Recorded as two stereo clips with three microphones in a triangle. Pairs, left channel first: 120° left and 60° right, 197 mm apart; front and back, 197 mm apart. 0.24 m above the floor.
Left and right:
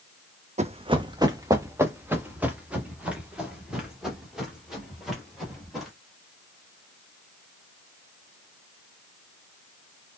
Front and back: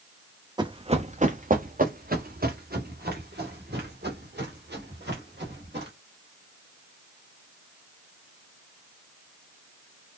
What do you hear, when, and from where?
0.6 s running footsteps: 115° right, 0.5 m; by 5.9 s 150° right, 3 m